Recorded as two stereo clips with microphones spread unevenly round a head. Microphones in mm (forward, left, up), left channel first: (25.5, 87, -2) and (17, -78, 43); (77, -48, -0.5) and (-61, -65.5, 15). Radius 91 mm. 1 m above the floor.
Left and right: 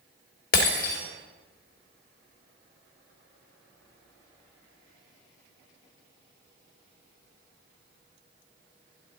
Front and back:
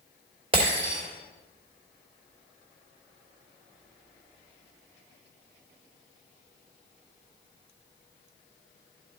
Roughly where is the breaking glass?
Behind left.